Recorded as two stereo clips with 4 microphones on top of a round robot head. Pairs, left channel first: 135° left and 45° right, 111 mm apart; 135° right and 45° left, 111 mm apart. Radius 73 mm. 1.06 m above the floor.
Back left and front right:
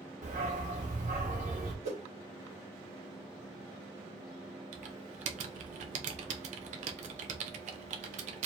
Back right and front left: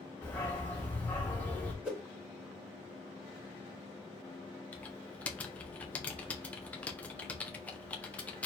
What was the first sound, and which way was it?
A dog barking, 60° right.